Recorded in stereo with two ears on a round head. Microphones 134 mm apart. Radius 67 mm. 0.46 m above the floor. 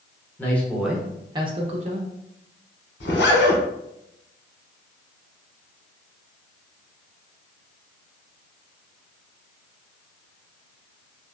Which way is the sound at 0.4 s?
15° left (ahead or behind).